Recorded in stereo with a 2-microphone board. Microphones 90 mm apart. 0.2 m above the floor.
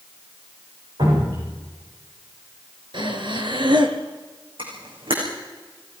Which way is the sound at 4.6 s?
75° right (ahead or behind).